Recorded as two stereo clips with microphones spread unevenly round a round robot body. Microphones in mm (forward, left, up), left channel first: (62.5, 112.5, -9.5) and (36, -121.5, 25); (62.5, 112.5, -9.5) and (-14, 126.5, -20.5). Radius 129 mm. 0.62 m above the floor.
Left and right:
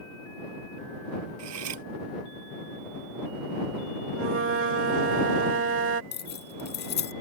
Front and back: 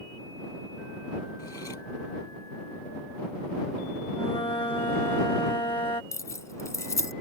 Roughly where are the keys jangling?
Ahead left.